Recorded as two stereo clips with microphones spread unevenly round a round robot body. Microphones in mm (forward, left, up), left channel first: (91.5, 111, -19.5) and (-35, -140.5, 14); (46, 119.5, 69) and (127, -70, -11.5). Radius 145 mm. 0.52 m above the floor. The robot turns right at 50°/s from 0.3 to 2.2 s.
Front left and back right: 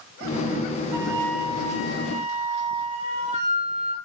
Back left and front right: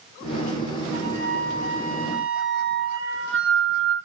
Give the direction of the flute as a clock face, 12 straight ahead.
4 o'clock.